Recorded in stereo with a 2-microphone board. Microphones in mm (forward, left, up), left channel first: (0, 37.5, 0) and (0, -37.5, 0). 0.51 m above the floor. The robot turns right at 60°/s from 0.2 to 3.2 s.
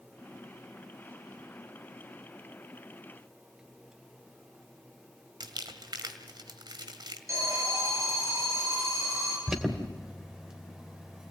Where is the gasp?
No gasp in this recording.